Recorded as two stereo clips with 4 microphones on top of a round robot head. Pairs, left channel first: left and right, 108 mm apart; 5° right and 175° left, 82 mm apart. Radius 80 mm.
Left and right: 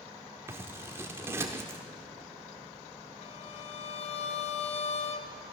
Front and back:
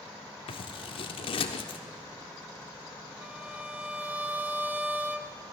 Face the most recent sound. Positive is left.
turn(degrees=105)